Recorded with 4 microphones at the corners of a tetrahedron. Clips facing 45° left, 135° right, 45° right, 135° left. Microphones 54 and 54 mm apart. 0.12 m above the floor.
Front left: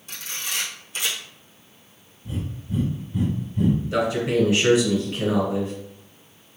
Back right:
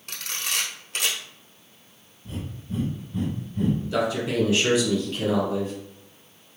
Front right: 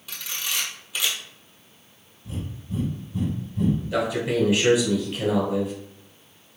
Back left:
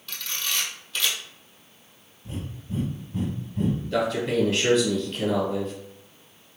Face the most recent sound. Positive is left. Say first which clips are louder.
# front left 3 dB, even
turn(degrees=15)